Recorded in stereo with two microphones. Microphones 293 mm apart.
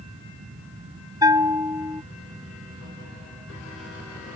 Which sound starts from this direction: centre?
A bell, at 1.2 s.